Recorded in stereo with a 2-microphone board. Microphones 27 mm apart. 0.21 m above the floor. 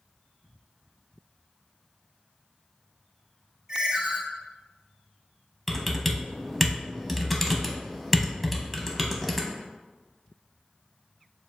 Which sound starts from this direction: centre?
Typing on a keyboard, at 5.7 s.